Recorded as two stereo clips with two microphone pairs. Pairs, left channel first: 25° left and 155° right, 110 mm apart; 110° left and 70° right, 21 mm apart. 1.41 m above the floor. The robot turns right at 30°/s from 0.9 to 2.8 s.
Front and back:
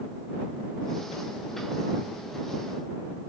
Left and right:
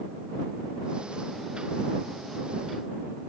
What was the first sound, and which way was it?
Only background noise.